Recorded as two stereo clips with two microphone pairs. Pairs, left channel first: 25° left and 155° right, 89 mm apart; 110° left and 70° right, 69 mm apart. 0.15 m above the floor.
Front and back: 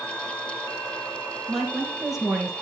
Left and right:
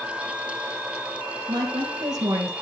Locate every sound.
1.5 s a woman speaking: 65° right, 4 m; by 2.5 s 70° right, 3.5 m